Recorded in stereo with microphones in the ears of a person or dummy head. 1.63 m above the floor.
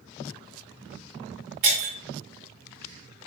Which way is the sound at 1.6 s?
40° right (ahead or behind).